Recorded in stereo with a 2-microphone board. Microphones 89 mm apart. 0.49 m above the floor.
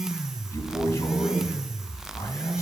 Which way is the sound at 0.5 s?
30° left (ahead or behind).